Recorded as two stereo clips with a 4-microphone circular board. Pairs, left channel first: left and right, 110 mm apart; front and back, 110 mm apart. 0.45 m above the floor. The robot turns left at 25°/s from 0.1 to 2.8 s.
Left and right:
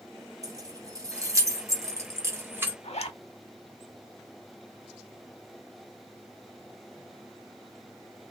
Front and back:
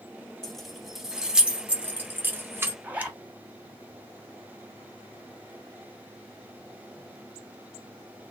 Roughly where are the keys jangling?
Right.